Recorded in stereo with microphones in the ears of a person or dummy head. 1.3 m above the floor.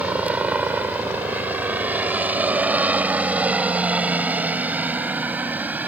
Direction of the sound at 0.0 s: 5° right (ahead or behind).